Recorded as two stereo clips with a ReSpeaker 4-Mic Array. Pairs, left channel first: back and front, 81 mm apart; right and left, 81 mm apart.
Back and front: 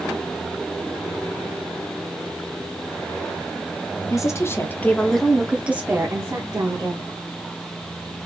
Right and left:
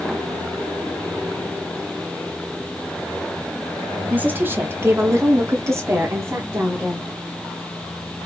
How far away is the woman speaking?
About 1.0 m.